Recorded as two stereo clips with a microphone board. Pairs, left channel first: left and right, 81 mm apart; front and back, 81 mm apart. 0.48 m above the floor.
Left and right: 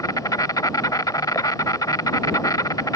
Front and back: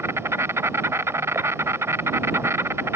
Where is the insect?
125° left.